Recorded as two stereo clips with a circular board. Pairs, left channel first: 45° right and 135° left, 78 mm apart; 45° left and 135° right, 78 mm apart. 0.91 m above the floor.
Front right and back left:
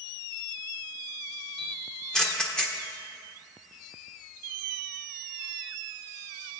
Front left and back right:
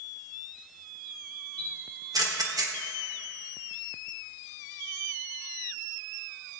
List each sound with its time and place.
1.6 s a camera shutter: 125° right, 1.3 m